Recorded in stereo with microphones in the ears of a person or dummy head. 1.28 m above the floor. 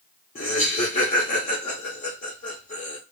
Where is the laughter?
40° left (ahead or behind), 0.8 m.